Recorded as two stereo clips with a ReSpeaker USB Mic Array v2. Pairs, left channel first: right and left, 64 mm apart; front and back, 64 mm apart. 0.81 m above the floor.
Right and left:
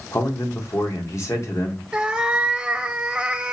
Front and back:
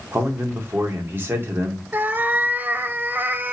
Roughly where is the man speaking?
Behind right.